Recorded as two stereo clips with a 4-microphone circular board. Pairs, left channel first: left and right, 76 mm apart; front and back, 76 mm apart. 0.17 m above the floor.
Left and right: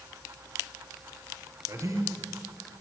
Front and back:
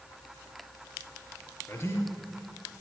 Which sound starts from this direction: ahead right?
A man speaking, at 1.7 s.